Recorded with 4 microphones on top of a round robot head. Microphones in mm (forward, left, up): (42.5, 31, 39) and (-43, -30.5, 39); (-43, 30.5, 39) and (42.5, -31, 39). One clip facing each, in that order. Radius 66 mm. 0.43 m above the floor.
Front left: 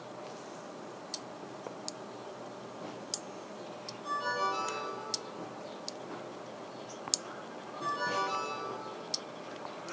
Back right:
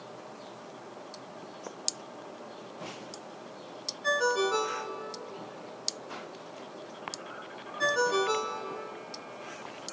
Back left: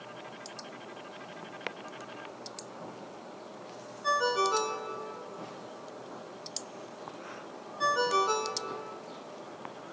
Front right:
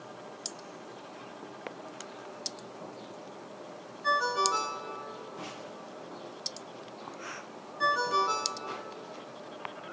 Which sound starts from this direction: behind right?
A ringtone, at 4.0 s.